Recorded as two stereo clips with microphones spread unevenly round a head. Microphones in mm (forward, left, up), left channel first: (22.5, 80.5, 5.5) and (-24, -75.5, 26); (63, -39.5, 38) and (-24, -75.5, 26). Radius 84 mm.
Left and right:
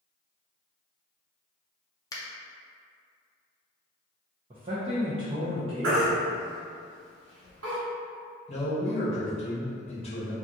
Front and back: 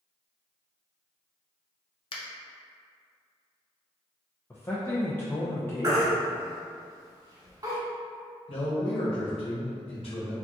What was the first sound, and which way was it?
A finger snap, 10° left.